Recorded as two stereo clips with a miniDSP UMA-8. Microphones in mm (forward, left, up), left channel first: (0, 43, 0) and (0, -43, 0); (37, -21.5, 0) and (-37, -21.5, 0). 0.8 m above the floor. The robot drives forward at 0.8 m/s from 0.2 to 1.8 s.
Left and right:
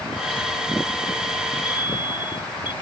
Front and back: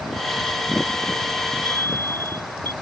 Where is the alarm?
60° left.